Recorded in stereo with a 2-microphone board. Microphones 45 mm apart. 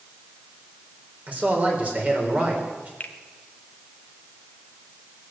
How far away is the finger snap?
About 1.1 m.